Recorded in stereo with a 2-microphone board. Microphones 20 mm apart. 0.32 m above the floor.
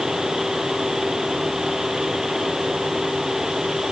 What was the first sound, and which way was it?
Only background noise.